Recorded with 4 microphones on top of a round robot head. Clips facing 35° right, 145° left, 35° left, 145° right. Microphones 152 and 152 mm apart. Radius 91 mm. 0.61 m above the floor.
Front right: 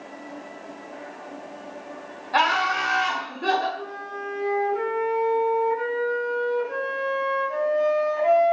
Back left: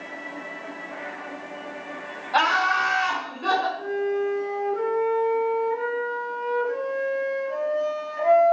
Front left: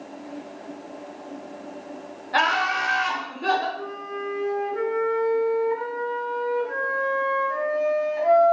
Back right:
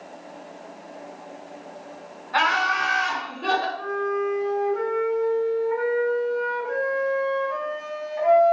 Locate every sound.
2.3 s laughter: 45° left, 1.3 m; by 3.7 s 50° right, 1.8 m
3.8 s a flute: 40° right, 2 m